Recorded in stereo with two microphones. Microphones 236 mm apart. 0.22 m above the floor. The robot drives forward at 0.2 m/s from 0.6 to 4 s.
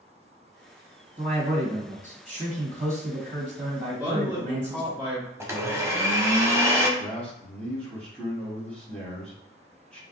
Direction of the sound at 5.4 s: 10° right (ahead or behind).